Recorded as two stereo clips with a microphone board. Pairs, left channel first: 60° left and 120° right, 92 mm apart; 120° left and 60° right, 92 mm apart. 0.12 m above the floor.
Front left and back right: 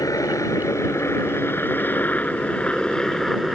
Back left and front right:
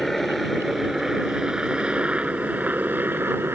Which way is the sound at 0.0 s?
35° left.